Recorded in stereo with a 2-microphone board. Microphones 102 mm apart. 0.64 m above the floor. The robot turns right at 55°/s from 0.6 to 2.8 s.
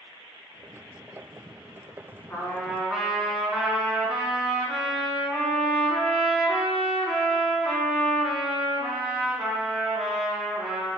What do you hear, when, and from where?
2.3 s a trumpet: 25° left (ahead or behind), 3.5 m; by 11.0 s centre (ahead or behind), 3.5 m